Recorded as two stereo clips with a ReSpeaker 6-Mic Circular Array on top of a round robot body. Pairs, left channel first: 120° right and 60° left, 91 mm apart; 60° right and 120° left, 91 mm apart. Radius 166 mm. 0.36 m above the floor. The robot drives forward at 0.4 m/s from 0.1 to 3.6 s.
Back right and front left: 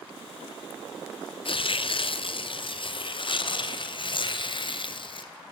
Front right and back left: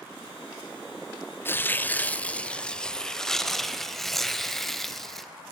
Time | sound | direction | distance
1.4 | tearing paper | 125° right | 1.4 m